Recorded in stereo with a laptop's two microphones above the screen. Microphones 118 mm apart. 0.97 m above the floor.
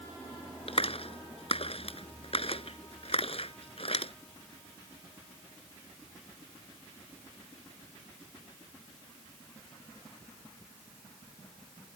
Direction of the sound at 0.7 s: 55° left (ahead or behind).